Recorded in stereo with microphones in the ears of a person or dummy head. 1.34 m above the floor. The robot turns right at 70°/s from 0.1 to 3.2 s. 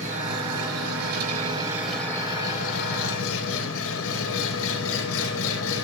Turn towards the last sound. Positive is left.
turn(degrees=90)